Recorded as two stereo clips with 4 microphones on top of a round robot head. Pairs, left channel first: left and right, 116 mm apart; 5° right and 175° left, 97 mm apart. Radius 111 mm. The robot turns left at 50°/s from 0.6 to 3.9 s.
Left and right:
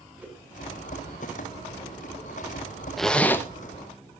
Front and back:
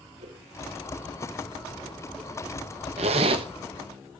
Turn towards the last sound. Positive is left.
turn(degrees=130)